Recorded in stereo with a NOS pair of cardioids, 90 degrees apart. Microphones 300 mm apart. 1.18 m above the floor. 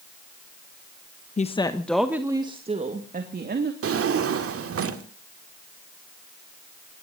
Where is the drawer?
50° right, 1.9 m.